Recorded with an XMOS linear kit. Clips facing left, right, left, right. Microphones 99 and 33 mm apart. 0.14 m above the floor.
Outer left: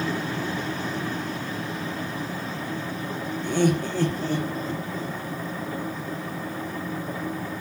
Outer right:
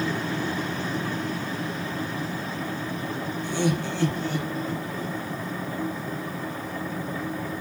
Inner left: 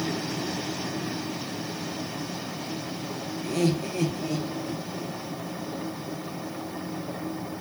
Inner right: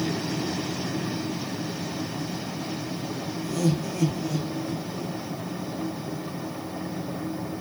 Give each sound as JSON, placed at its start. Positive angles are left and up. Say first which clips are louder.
{"t": 3.4, "sound": "laughter", "louder": "outer left 4 dB, inner left 1 dB", "side_deg": 55, "distance_m": 2.5}